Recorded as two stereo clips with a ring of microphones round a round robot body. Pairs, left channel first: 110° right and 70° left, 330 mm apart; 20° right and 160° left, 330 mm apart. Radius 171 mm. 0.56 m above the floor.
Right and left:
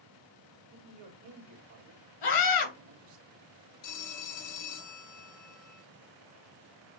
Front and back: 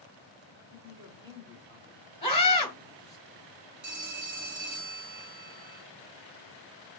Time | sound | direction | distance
0.7 | a man speaking | 85° left | 2.0 m
2.2 | a scream | 95° right | 2.5 m
3.8 | a phone ringing | 145° right | 1.6 m